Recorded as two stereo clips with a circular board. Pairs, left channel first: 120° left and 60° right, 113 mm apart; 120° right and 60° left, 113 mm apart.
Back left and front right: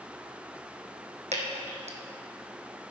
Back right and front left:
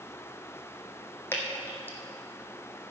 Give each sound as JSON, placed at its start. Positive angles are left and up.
{"t": 1.3, "sound": "dripping", "azimuth_deg": -50, "distance_m": 1.7}